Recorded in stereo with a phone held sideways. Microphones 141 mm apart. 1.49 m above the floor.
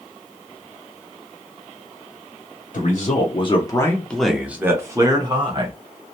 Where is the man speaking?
60° left (ahead or behind), 0.8 m; by 5.8 s 35° right (ahead or behind), 1.2 m.